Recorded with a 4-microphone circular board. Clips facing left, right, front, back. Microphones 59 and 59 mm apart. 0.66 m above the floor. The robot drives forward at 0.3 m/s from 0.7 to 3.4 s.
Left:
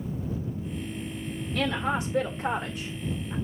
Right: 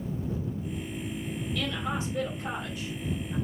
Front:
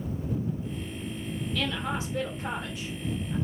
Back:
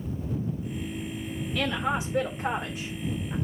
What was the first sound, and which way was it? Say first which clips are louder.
A woman speaking: left 6 dB, back 4 dB; 110° left.